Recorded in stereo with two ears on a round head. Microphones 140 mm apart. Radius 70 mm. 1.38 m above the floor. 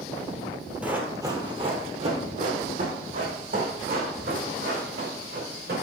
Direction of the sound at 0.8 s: 10° right (ahead or behind).